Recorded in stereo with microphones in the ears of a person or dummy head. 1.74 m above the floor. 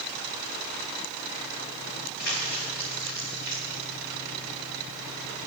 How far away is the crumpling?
About 2.5 m.